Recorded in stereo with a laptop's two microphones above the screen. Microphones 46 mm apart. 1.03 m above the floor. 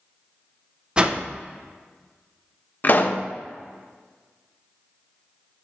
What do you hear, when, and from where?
1.0 s a whoosh: 25° right (ahead or behind), 0.5 m
2.8 s a pop: 40° left (ahead or behind), 0.6 m